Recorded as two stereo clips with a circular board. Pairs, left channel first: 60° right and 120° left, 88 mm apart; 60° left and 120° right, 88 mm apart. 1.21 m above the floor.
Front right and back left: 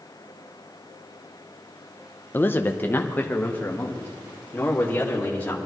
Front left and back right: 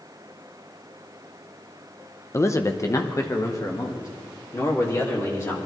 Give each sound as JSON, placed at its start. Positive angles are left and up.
{"t": 2.3, "sound": "a man speaking", "azimuth_deg": 5, "distance_m": 0.7}